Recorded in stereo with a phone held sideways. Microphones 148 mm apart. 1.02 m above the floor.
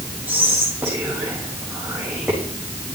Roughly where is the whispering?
Centre.